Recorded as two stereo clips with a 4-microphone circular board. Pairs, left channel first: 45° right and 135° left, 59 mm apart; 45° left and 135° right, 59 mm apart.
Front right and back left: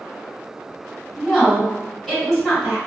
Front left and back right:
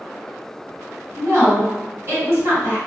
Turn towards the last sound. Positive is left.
turn(degrees=-135)